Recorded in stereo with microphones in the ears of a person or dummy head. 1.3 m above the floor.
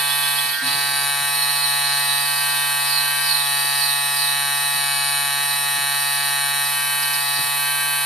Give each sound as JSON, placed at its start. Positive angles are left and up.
{"t": 0.0, "sound": "a machine running", "side_deg": 10, "distance_m": 0.7}